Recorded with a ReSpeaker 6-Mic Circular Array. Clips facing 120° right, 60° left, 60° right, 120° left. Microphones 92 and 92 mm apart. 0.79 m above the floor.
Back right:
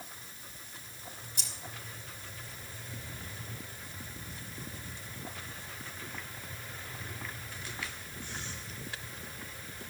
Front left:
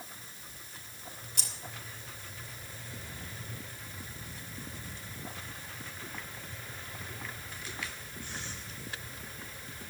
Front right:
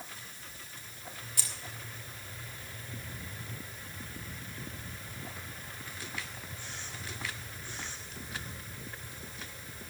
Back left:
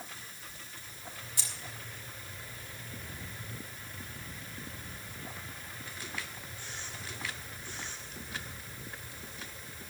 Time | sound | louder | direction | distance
1.4 | keys jangling | front left 1 dB, even | 50° left | 1.9 m